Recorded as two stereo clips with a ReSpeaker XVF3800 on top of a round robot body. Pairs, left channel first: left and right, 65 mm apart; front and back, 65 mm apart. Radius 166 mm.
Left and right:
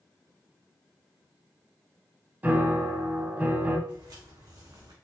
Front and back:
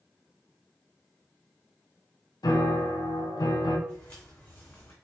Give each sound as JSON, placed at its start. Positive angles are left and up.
{"t": 2.4, "sound": "a piano", "azimuth_deg": -30, "distance_m": 0.8}
{"t": 3.9, "sound": "footsteps", "azimuth_deg": -70, "distance_m": 1.9}